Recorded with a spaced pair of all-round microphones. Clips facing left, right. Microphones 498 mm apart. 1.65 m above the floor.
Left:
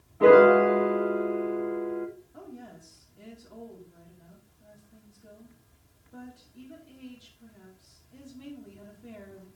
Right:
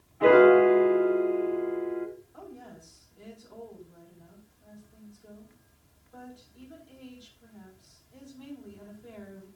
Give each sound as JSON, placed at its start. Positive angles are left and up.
{"t": 0.2, "sound": "a piano", "side_deg": 60, "distance_m": 2.5}
{"t": 2.3, "sound": "a woman speaking", "side_deg": 45, "distance_m": 5.0}